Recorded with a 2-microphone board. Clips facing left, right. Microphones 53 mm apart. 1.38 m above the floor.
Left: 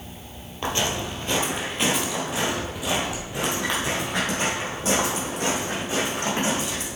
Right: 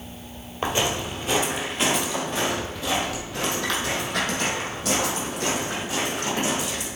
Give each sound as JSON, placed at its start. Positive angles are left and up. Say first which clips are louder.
{"t": 0.6, "sound": "footsteps", "louder": "right 1 dB", "side_deg": -20, "distance_m": 2.0}